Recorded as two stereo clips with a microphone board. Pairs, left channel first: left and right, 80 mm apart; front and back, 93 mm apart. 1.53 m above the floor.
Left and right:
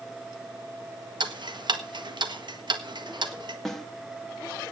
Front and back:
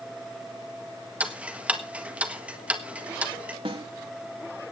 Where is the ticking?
105° right, 1.5 m.